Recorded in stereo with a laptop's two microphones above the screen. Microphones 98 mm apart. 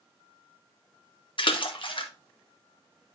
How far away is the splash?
About 1.0 m.